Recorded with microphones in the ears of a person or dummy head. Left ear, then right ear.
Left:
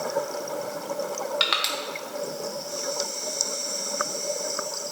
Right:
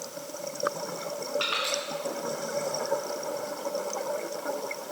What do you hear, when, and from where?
1.4 s crushing: 40° left (ahead or behind), 1.2 m